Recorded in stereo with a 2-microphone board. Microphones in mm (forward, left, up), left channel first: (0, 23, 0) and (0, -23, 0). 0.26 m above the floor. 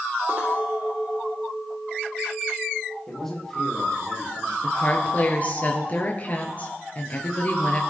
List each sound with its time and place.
0.3 s a clink: 35° right (ahead or behind), 6 m
3.1 s a man speaking: 10° left (ahead or behind), 8.5 m
4.6 s a woman speaking: 35° left (ahead or behind), 5.5 m